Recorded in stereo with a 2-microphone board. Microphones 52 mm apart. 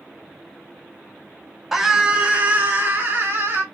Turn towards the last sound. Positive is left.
turn(degrees=-50)  # may be behind; listen again after turning